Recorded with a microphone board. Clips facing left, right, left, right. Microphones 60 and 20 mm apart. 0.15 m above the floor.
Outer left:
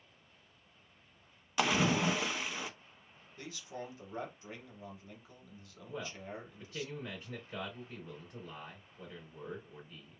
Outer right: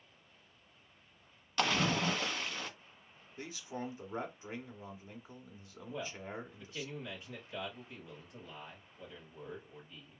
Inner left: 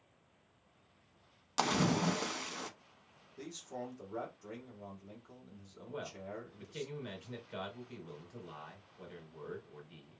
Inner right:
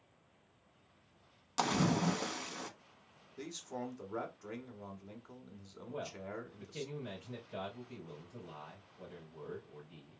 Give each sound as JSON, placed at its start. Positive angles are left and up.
{"t": 1.6, "sound": "a splash", "side_deg": 10, "distance_m": 0.5}
{"t": 3.4, "sound": "a man speaking", "side_deg": -20, "distance_m": 1.1}
{"t": 5.9, "sound": "a man speaking", "side_deg": 35, "distance_m": 2.5}